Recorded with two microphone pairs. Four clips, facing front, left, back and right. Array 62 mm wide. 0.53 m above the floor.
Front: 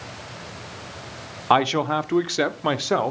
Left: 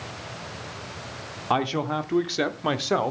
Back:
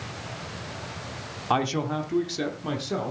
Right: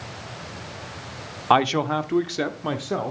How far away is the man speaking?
About 0.8 m.